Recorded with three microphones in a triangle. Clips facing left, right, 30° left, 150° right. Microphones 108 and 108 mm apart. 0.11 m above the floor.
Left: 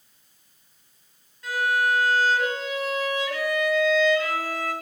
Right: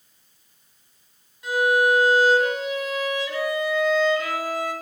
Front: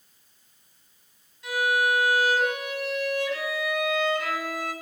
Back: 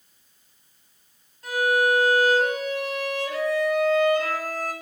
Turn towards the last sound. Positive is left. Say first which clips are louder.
# right 4 dB, back 3 dB
turn(degrees=-160)